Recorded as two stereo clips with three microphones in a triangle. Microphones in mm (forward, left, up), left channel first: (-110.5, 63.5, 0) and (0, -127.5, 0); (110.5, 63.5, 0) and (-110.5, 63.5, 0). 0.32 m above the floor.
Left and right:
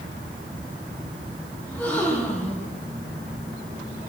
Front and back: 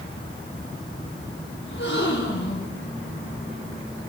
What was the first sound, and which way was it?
A gasp, 35° left.